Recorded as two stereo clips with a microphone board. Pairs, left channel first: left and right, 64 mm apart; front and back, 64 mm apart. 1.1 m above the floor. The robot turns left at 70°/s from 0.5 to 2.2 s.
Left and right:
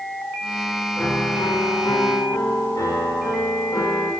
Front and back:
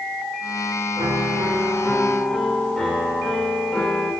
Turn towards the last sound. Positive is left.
turn(degrees=80)